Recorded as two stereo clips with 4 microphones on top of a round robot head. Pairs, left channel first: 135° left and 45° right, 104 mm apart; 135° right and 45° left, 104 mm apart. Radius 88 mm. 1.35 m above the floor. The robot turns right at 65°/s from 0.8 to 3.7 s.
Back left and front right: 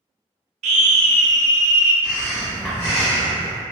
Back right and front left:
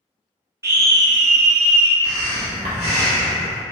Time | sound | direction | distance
0.6 | a scream | 25° right | 0.5 m
2.0 | breathing | 10° left | 0.5 m